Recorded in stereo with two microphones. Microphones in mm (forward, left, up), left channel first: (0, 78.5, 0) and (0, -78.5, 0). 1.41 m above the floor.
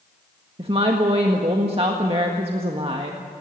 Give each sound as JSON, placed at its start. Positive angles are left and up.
{"t": 0.6, "sound": "a woman speaking", "side_deg": -35, "distance_m": 1.6}